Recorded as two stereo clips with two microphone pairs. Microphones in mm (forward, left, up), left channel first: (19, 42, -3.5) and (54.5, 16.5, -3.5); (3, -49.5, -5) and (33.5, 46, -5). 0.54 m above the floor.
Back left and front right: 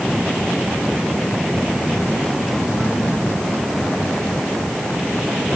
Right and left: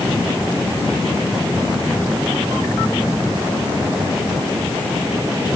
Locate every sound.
Only background noise.